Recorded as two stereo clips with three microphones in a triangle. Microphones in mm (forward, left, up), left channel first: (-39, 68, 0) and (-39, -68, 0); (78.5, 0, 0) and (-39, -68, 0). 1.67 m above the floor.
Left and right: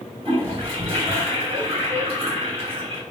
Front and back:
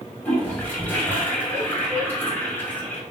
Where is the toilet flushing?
45° right, 2 m.